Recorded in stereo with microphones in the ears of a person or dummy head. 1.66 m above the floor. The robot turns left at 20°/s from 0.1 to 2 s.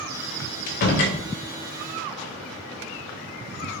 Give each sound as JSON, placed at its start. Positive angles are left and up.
{"t": 0.7, "sound": "a door slam", "side_deg": 45, "distance_m": 0.7}